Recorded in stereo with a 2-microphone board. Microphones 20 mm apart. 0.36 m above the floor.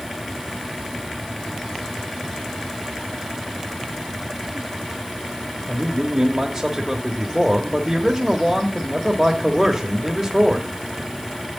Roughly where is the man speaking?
Centre.